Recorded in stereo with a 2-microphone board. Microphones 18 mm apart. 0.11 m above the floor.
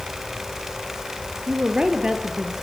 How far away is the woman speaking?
About 2 m.